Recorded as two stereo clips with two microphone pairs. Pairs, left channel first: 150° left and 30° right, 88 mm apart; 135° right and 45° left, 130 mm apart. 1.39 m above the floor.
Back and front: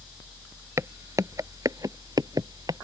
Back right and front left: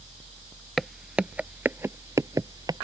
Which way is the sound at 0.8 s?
45° right.